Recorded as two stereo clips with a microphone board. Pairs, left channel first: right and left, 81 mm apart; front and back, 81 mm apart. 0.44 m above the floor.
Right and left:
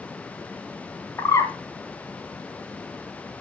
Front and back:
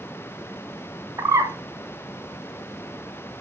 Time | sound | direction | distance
1.2 | a bird | 135° right | 1.5 m